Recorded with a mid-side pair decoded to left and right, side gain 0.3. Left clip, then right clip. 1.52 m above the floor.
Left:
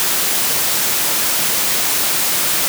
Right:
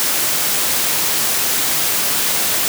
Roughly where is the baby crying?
No baby crying in this recording.